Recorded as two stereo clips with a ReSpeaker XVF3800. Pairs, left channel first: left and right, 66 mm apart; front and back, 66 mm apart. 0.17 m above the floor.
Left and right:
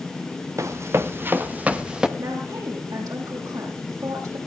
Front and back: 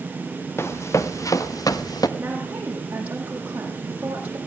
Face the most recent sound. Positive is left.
turn(degrees=-115)